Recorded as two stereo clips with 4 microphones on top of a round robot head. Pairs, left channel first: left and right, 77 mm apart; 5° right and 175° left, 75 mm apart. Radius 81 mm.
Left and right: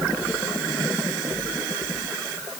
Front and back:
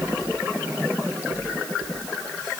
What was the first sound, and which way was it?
Only background noise.